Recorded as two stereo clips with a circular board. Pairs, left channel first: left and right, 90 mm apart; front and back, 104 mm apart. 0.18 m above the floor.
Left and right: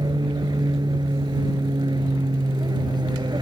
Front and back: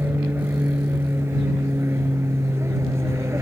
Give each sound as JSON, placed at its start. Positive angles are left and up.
{"t": 0.0, "sound": "an aircraft", "azimuth_deg": -115}